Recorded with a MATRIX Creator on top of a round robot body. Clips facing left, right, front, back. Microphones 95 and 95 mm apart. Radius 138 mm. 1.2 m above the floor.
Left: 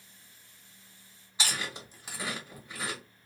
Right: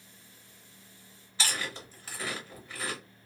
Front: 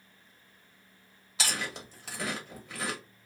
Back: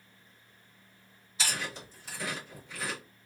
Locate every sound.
1.4 s chewing: 15° left, 1.3 m